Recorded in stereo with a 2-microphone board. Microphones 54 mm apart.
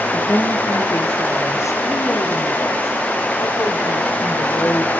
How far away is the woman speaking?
About 5.5 m.